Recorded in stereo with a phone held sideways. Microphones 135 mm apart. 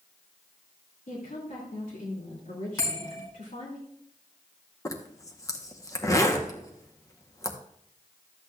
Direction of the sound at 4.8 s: 25° left (ahead or behind).